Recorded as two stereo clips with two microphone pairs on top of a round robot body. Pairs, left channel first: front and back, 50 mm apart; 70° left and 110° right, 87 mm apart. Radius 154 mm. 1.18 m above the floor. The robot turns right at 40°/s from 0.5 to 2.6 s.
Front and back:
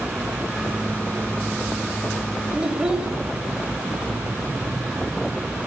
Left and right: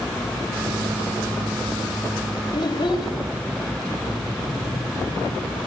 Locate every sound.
2.5 s a child speaking: 110° left, 2 m; by 3.1 s 115° left, 2 m